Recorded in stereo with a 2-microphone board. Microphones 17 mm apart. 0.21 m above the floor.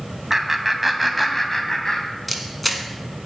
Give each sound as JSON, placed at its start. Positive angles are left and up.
{"t": 0.3, "sound": "laughter", "side_deg": -25, "distance_m": 1.6}
{"t": 2.3, "sound": "a camera shutter", "side_deg": 0, "distance_m": 1.4}